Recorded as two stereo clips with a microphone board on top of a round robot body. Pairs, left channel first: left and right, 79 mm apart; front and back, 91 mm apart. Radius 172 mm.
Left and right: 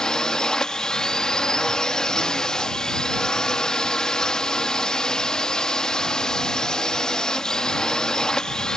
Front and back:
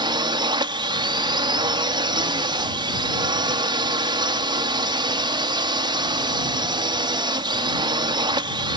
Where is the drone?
170° left.